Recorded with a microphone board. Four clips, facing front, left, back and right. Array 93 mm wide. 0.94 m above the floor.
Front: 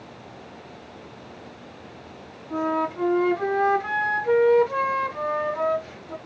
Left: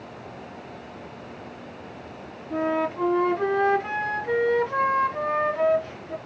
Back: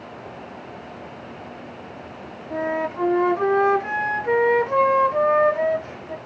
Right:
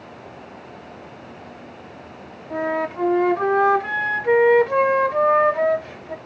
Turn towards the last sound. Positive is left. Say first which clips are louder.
# right 1 dB, even
turn(degrees=-110)